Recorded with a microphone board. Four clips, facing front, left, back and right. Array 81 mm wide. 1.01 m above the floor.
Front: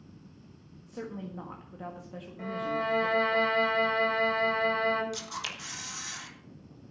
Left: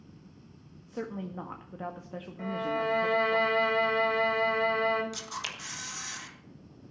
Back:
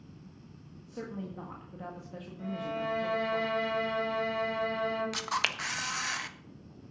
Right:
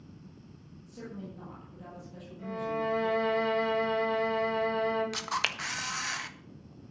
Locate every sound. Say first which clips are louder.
0.9 s a woman speaking: left 6 dB, front 1 dB; 85° left, 1.5 m
2.4 s a violin: left 2 dB, front 3 dB; 55° left, 3.5 m
5.1 s a camera shutter: right 6 dB, back 6 dB; 140° right, 1.3 m